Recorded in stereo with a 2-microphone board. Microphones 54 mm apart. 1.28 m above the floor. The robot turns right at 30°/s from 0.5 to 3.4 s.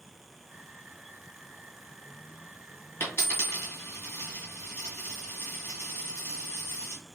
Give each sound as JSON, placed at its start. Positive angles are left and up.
{"t": 3.0, "sound": "a dropped coin", "side_deg": 45, "distance_m": 2.0}